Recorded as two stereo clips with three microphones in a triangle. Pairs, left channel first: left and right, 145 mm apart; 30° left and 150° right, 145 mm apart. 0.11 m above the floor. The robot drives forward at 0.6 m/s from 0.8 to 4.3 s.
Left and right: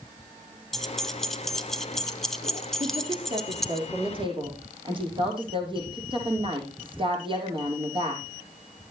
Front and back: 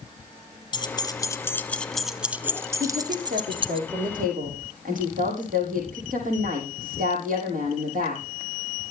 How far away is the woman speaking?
About 5 m.